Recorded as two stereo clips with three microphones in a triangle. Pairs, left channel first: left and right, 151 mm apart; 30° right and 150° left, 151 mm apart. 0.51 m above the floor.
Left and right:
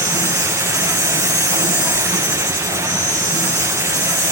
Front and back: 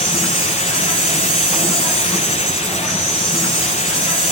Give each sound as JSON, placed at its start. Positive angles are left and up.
{"t": 0.0, "sound": "an insect", "azimuth_deg": 65, "distance_m": 5.5}